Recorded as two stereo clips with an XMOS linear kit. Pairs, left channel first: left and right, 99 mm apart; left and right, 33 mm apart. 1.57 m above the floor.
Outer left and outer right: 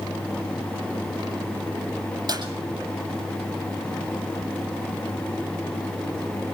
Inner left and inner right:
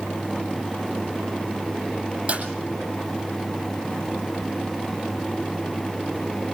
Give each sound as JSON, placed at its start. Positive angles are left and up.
{"t": 2.3, "sound": "a clap", "side_deg": -45, "distance_m": 9.0}